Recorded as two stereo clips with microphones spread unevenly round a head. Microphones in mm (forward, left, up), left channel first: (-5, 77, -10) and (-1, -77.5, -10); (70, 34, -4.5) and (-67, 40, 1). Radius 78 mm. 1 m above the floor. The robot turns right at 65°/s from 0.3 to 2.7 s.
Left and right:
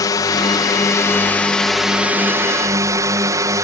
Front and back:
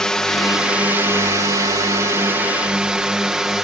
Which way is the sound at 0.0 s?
75° left.